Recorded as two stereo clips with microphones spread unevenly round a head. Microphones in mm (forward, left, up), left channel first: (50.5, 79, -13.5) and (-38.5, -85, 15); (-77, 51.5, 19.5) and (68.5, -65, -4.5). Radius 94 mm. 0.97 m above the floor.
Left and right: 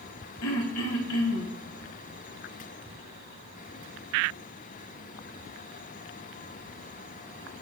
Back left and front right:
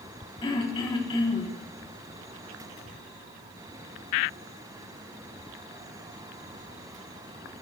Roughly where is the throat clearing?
Left.